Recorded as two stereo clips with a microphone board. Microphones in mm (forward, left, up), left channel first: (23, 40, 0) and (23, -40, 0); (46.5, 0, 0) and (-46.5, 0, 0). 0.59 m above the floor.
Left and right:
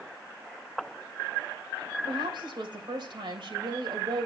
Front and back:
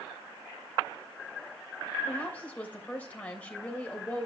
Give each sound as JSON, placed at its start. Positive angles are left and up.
{"t": 2.1, "sound": "a woman speaking", "azimuth_deg": -75, "distance_m": 3.0}